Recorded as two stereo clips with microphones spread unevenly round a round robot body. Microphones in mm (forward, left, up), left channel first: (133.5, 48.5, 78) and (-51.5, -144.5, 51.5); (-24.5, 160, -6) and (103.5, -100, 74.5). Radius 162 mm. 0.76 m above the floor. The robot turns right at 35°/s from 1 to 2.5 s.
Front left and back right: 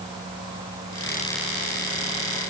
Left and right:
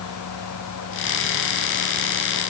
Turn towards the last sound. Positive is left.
No sound to turn to.